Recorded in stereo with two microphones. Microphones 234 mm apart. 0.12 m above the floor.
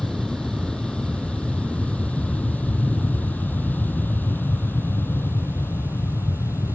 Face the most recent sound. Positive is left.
turn(degrees=10)  # may be behind; listen again after turning